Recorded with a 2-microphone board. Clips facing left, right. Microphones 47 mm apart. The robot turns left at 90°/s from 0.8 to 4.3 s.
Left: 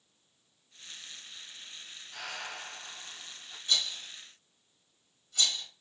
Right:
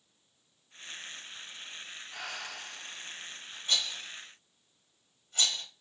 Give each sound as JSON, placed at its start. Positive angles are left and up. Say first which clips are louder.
{"t": 2.1, "sound": "breathing", "louder": "left 1 dB", "azimuth_deg": -165, "distance_m": 0.6}
{"t": 3.7, "sound": "a rattle", "louder": "even", "side_deg": -35, "distance_m": 1.5}